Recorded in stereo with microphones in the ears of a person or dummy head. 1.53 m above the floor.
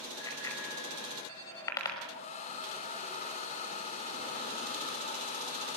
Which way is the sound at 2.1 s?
40° left (ahead or behind).